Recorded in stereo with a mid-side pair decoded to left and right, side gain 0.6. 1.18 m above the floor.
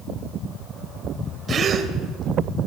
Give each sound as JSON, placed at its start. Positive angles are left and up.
{"t": 1.5, "sound": "a gasp", "azimuth_deg": -40, "distance_m": 2.5}